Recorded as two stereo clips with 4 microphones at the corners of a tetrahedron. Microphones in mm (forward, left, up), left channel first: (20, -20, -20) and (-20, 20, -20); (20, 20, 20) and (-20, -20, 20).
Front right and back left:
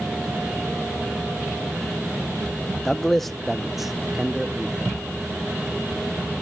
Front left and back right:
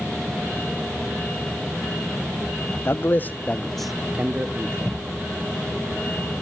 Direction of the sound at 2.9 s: 35° left.